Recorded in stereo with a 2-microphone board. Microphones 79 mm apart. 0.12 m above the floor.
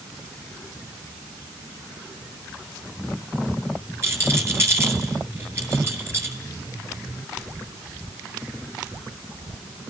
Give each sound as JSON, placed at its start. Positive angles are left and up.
{"t": 4.0, "sound": "a rattle", "side_deg": -35, "distance_m": 1.6}